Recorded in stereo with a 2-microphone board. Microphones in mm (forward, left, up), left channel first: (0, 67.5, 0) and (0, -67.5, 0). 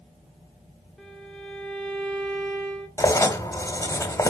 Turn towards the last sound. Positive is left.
turn(degrees=20)  # may be behind; listen again after turning